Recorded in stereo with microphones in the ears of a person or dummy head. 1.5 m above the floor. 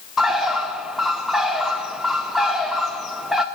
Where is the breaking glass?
No breaking glass in this recording.